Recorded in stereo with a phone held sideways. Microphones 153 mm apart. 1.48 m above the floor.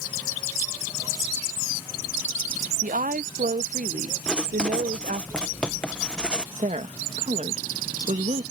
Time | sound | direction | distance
2.8 | a woman speaking | 60° right (ahead or behind) | ?
4.3 | writing | 5° left (ahead or behind) | ?
6.6 | a woman speaking | 55° right (ahead or behind) | ?